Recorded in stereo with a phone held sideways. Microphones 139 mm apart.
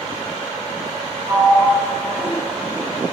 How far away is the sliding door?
About 1.2 m.